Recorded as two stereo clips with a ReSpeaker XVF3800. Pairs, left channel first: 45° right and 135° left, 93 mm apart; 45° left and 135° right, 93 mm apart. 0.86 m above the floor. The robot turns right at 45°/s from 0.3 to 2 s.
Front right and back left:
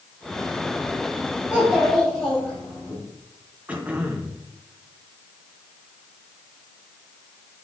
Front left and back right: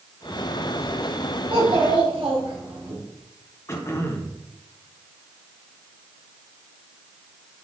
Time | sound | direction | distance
1.5 | a child speaking | 150° right | 4 m
3.7 | throat clearing | 70° left | 0.9 m